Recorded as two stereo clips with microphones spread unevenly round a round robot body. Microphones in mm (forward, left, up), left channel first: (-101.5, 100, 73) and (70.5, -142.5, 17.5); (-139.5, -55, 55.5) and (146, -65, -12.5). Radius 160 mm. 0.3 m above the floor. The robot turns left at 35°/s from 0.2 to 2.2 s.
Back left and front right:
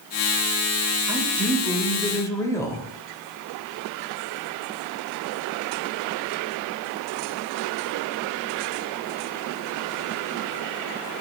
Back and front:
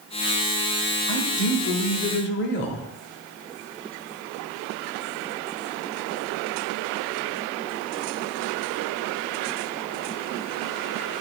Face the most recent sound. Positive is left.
turn(degrees=-145)